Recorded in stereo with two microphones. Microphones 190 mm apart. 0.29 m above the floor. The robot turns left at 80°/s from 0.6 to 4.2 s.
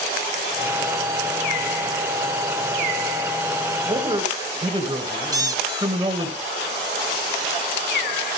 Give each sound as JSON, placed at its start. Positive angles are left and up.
{"t": 3.9, "sound": "a man speaking", "side_deg": -30, "distance_m": 1.6}
{"t": 5.3, "sound": "a squeak", "side_deg": -20, "distance_m": 0.6}